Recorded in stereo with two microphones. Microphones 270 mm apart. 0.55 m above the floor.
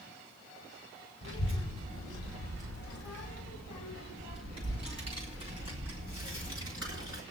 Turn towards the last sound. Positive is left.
turn(degrees=50)  # may be behind; listen again after turning